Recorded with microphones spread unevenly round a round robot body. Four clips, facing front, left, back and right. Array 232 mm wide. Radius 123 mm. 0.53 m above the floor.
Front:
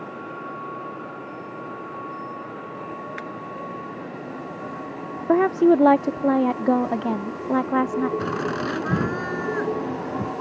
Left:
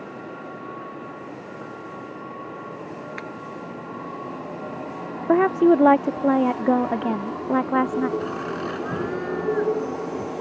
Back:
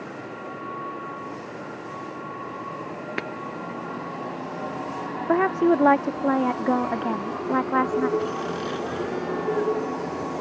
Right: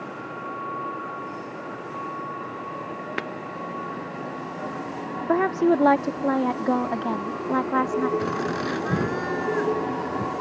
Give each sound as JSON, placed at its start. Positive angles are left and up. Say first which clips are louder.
{"t": 3.2, "sound": "breaking glass", "louder": "right 4 dB, back 3 dB", "azimuth_deg": -140}
{"t": 5.3, "sound": "a woman speaking", "louder": "left 4 dB, front 3 dB", "azimuth_deg": 45}
{"t": 8.2, "sound": "laughter", "louder": "right 2 dB, front 2 dB", "azimuth_deg": -20}